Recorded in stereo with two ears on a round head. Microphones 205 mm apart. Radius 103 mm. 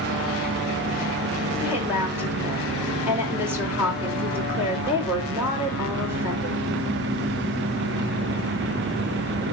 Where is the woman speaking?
10° right (ahead or behind), 3.5 m.